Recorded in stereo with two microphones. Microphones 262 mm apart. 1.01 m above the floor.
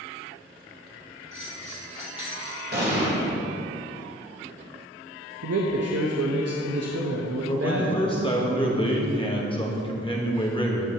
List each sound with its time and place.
1.3 s a bell: 25° right (ahead or behind), 2 m
2.7 s an explosion: 40° right (ahead or behind), 1.7 m
5.4 s a man speaking: 65° right (ahead or behind), 0.7 m
7.5 s a man speaking: 20° left (ahead or behind), 1.1 m